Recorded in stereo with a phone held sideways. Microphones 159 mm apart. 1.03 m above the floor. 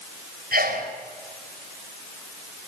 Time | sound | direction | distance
0.5 | a sneeze | 70° right (ahead or behind) | 4 m